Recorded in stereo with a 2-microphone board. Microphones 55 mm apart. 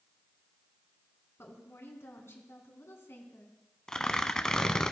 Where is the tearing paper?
10° left (ahead or behind), 0.5 m.